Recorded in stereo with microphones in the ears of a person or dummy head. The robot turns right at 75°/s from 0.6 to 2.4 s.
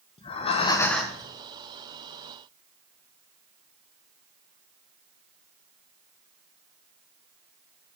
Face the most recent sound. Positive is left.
turn(degrees=-80)